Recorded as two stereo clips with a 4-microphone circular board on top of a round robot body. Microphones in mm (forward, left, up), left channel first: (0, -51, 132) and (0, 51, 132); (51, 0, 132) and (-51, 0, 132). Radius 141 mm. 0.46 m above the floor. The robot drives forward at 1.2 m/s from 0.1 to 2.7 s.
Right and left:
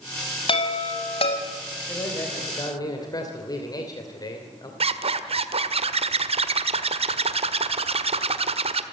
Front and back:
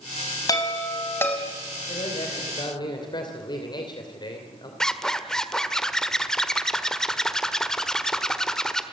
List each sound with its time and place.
0.5 s a chime: 55° right, 3.5 m; by 1.4 s 70° right, 3 m
1.9 s a man speaking: 30° right, 3.5 m; by 4.7 s 40° right, 3 m
4.8 s a zipper: 85° left, 1.5 m